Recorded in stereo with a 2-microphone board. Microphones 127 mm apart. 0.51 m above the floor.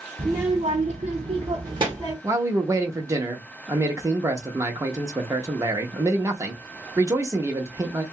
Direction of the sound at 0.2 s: 30° right (ahead or behind).